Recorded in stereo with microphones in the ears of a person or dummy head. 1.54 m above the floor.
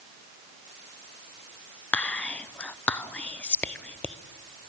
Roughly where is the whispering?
Centre.